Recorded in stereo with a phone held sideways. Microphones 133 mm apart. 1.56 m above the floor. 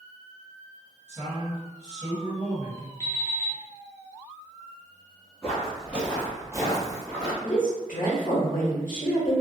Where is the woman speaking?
85° left, 0.8 m.